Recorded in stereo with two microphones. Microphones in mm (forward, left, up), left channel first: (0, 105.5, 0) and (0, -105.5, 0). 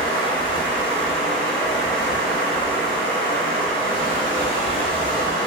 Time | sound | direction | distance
0.0 | running water | 25° left (ahead or behind) | 0.9 m